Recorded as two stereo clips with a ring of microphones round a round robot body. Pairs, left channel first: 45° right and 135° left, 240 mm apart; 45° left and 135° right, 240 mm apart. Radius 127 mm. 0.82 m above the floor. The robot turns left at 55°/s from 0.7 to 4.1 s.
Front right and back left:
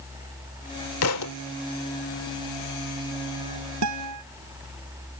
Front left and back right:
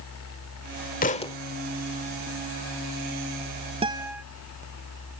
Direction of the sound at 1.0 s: 10° right.